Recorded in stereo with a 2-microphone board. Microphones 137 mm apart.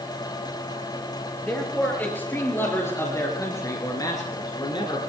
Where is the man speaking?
10° left (ahead or behind), 5.5 m; by 5.0 s 35° left (ahead or behind), 3.5 m.